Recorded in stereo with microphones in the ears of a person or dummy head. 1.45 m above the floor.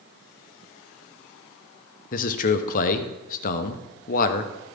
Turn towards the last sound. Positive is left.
turn(degrees=50)  # may be behind; listen again after turning